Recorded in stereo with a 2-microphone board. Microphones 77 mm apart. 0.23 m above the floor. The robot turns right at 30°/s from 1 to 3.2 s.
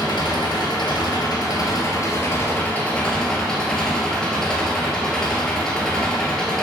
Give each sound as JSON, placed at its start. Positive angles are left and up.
{"t": 0.0, "sound": "an engine running", "azimuth_deg": 105, "distance_m": 1.5}